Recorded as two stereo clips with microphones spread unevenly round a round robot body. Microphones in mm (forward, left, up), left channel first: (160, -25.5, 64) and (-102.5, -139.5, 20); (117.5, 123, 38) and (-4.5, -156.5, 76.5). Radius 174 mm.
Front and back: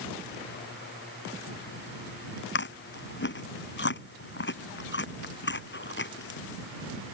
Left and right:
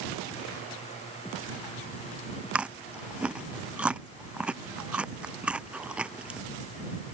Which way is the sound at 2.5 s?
25° right.